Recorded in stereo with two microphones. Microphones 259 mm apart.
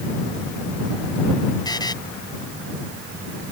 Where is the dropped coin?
No dropped coin in this recording.